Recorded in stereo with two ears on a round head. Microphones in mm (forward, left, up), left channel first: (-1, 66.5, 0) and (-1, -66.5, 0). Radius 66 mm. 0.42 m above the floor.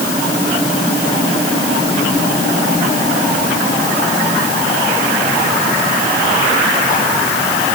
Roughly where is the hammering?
I don't hear hammering.